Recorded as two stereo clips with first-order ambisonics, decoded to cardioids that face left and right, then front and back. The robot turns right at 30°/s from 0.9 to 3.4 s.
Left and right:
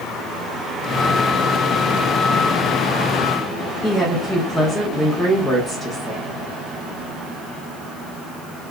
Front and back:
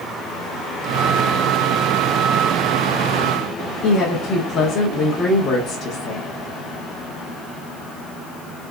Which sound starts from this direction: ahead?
A woman speaking, at 3.8 s.